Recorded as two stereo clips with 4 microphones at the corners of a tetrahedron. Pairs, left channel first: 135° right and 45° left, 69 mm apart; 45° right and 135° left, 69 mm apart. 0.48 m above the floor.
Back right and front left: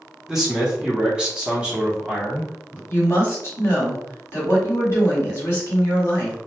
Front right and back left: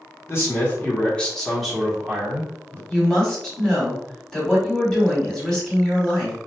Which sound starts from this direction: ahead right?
A man speaking, at 0.3 s.